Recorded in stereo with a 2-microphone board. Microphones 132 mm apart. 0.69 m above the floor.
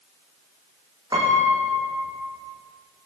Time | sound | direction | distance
1.1 | a piano | 30° right (ahead or behind) | 8 m